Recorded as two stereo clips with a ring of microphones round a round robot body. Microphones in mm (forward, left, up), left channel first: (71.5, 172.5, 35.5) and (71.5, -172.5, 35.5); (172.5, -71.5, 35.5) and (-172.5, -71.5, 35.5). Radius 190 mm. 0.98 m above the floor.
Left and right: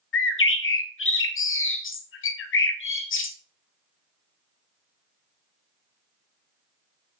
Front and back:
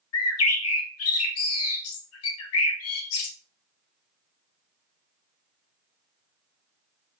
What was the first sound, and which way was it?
A bird, 40° left.